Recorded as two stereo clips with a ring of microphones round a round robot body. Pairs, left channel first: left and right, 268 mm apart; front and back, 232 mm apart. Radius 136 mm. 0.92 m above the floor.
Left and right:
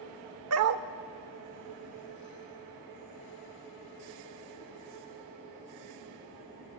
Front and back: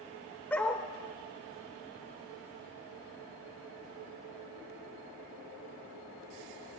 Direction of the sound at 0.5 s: 85° right.